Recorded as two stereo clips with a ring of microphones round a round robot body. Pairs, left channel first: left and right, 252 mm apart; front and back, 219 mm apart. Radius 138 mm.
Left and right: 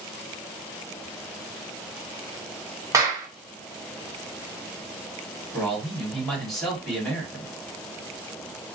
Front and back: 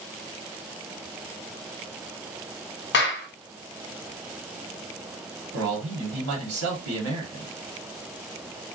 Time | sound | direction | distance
2.9 | a clap | 15° right | 0.8 m
5.5 | a man speaking | straight behind | 1.5 m